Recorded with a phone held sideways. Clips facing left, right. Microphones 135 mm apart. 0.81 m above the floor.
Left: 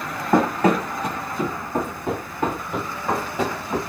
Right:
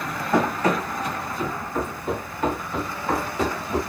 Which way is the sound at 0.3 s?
55° left (ahead or behind).